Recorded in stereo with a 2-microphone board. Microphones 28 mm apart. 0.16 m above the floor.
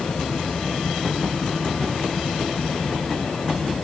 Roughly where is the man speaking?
No man speaking in this recording.